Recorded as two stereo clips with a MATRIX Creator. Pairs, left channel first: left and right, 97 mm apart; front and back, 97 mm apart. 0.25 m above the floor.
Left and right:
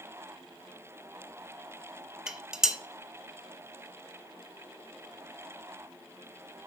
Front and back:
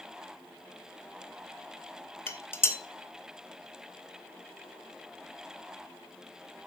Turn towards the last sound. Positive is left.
turn(degrees=-15)